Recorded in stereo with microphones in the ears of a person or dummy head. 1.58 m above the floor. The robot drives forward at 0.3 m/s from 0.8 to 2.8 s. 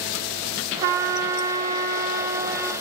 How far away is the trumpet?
About 0.9 m.